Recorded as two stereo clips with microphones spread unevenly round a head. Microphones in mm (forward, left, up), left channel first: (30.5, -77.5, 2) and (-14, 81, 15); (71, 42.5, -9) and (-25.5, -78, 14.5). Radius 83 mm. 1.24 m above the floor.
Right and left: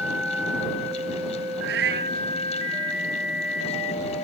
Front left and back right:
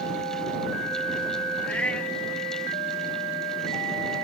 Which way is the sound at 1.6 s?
135° left.